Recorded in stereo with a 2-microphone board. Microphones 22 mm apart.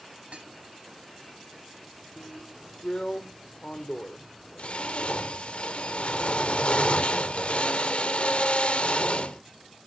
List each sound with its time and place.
0.3 s dishes clattering: 70° right (ahead or behind), 3.5 m
2.2 s a drill: 65° left (ahead or behind), 1.3 m